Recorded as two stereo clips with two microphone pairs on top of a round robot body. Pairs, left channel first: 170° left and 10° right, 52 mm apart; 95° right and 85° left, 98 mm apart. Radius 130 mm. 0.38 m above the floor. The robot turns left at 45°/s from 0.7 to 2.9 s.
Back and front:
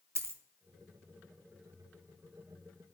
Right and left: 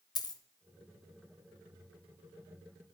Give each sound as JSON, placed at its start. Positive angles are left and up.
{"t": 0.1, "sound": "a dropped coin", "azimuth_deg": -45, "distance_m": 0.9}